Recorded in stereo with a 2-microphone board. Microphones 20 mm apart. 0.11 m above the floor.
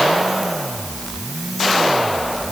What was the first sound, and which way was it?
Only background noise.